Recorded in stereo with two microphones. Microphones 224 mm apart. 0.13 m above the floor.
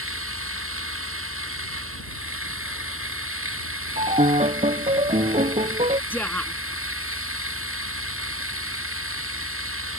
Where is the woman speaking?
10° left (ahead or behind).